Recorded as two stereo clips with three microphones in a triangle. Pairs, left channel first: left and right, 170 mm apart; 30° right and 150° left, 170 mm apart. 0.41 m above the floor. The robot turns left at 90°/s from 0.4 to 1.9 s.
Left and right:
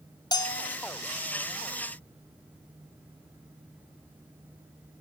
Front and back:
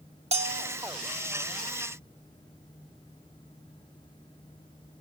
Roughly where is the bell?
Behind left.